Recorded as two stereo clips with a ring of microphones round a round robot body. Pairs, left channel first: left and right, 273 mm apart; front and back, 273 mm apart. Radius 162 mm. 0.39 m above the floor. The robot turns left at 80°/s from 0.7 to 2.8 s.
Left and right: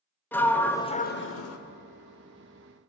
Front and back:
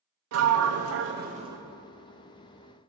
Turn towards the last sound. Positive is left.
turn(degrees=5)